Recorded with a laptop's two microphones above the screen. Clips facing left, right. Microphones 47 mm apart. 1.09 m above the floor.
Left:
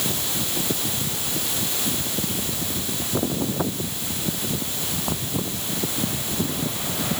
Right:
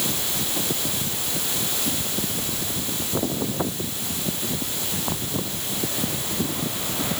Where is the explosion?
I don't hear an explosion.